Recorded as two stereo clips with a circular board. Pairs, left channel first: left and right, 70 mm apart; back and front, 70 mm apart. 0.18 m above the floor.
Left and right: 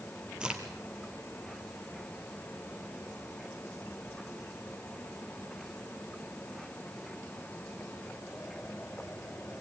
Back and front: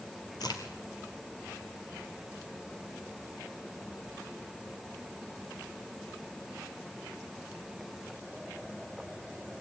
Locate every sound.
0.4 s a crack: 165° right, 2.5 m